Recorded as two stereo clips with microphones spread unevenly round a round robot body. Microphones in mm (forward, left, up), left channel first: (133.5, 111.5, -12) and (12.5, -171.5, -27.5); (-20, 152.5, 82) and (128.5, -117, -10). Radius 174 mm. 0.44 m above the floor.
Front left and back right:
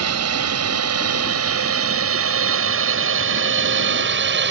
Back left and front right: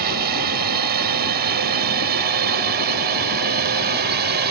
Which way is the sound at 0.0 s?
100° right.